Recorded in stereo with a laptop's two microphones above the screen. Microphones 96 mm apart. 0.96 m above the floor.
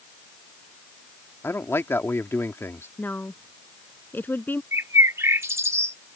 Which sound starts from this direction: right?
A bird, at 4.7 s.